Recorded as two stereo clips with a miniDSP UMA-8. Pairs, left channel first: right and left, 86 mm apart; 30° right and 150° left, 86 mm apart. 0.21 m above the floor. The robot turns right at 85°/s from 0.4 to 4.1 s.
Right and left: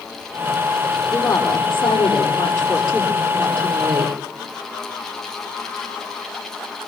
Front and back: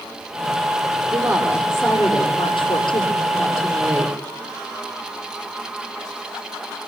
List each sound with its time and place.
1.1 s a woman speaking: 150° right, 6.5 m; by 4.1 s 105° left, 6.5 m